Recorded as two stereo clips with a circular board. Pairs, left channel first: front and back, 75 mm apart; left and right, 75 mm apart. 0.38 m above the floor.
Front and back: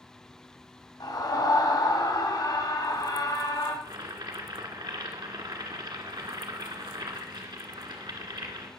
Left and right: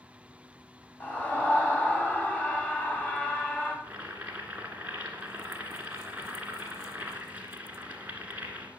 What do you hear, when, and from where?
1.0 s a scream: 20° left, 3 m
3.8 s boiling: 160° right, 1.7 m